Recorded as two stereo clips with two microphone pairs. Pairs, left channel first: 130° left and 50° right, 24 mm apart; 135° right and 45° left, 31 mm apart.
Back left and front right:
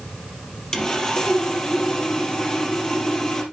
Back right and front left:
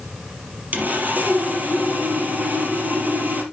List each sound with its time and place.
0.7 s sawing: 70° left, 3.5 m